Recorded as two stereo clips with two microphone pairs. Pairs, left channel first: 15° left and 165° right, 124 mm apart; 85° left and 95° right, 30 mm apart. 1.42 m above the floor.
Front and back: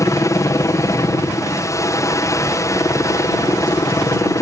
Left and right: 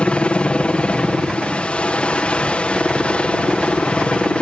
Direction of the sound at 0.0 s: 65° left.